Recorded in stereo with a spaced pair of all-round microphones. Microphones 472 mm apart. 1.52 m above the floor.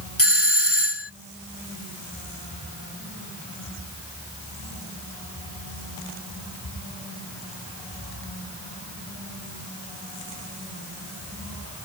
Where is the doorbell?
30° left (ahead or behind).